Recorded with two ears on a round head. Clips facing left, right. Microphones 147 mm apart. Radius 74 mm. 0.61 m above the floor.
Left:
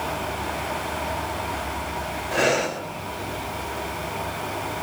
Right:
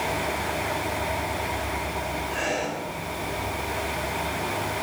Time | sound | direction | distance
2.3 | breathing | 70° left (ahead or behind) | 3 m